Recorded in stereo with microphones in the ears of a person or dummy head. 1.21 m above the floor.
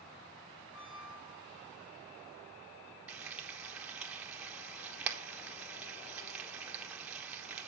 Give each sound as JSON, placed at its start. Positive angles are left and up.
{"t": 0.7, "sound": "a squeak", "side_deg": 60, "distance_m": 1.7}
{"t": 3.1, "sound": "frying", "side_deg": -5, "distance_m": 1.1}